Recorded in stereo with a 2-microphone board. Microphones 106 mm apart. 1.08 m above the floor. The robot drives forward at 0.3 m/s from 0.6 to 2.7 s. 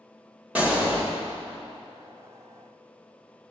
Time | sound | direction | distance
0.6 | a gunshot | 15° right (ahead or behind) | 1.1 m